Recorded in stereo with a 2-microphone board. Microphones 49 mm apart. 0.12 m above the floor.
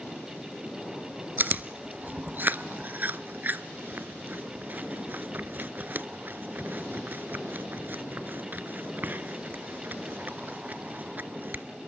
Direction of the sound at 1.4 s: 40° right (ahead or behind).